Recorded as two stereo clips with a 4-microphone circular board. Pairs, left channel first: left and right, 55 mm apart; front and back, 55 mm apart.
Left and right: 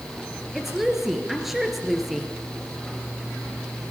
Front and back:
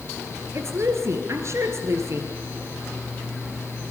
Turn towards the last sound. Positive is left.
turn(degrees=-175)